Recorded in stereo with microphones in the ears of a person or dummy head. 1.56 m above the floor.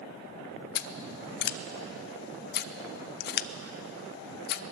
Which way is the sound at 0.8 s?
55° left (ahead or behind).